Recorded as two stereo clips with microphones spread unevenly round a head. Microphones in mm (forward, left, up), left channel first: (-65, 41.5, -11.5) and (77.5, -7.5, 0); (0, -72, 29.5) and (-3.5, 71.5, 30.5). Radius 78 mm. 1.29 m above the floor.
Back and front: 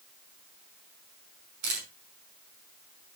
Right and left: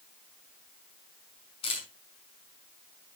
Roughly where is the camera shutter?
Ahead right.